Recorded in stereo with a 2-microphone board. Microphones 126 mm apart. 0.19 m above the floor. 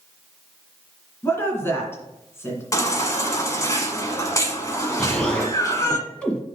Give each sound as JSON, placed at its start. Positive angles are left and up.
{"t": 1.2, "sound": "a woman speaking", "side_deg": 20, "distance_m": 2.0}
{"t": 2.7, "sound": "a baby crying", "side_deg": 25, "distance_m": 0.8}
{"t": 5.0, "sound": "an explosion", "side_deg": 10, "distance_m": 1.4}